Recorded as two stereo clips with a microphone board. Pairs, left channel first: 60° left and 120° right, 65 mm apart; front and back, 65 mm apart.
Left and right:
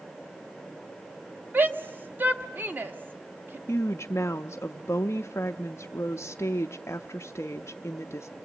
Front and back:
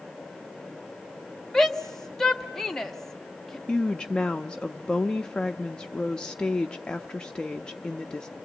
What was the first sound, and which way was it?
A shout, 80° right.